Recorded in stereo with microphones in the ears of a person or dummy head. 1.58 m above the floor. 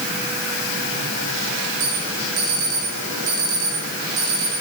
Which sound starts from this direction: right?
An alarm, at 1.8 s.